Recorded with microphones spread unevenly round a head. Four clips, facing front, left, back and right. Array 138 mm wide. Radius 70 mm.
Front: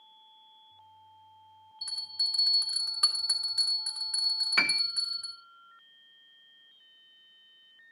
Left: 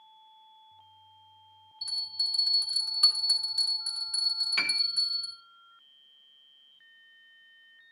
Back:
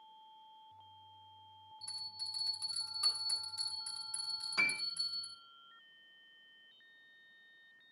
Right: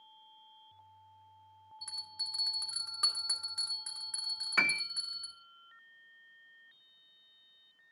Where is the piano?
25° right, 0.9 m.